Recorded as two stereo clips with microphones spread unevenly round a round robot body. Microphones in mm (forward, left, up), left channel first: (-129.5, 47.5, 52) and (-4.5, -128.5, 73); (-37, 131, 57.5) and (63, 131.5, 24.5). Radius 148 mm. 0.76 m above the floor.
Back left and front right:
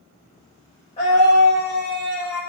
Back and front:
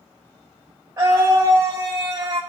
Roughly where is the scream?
Ahead left.